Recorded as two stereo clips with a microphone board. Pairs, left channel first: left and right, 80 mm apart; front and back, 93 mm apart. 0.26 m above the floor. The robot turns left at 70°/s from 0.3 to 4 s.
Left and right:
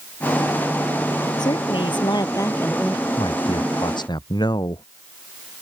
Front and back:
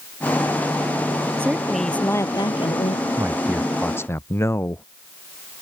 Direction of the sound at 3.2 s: 125° left.